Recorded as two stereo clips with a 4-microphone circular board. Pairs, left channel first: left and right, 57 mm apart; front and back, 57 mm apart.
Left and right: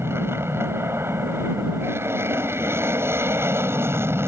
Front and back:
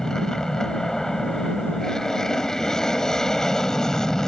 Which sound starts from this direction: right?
An aircraft, at 0.0 s.